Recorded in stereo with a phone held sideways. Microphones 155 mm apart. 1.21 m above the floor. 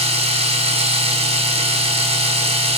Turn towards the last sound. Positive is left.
turn(degrees=-40)  # may be behind; listen again after turning